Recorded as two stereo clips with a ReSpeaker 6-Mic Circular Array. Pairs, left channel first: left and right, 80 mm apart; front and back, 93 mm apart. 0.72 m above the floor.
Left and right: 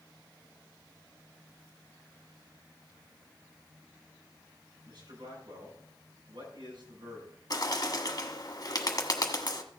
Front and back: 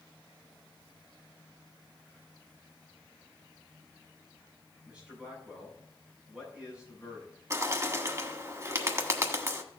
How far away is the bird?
About 1.4 m.